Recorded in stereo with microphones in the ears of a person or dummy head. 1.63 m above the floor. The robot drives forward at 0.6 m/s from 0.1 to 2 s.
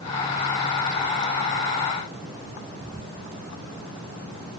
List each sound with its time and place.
Only background noise.